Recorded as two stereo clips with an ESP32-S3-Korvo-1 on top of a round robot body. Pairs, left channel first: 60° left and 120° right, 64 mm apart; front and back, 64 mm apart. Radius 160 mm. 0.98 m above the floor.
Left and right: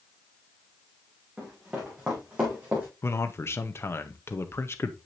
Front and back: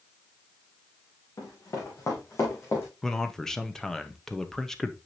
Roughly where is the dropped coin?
I don't hear a dropped coin.